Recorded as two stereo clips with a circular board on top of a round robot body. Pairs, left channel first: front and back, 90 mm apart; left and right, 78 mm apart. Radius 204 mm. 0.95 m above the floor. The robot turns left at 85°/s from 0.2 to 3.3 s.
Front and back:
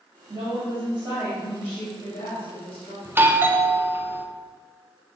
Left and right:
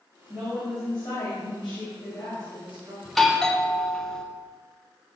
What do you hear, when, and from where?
0.3 s a woman speaking: 165° right, 2 m; by 3.0 s 30° right, 2 m
3.0 s a doorbell: 175° right, 0.9 m; by 4.2 s 165° left, 0.9 m